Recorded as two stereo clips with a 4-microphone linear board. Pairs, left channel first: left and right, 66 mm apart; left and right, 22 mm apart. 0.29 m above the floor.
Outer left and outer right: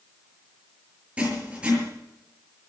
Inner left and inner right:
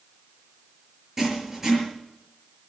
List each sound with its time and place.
1.2 s writing: 15° right (ahead or behind), 5.5 m